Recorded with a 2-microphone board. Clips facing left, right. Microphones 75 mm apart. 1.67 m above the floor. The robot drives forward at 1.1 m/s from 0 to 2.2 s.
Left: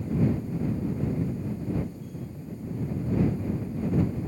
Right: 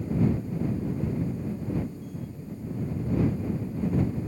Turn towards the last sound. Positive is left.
No sound to turn to.